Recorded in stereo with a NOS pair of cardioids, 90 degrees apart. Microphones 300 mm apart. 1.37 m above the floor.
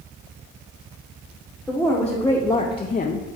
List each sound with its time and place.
1.7 s a woman speaking: straight ahead, 1.2 m; by 3.3 s 40° left, 0.5 m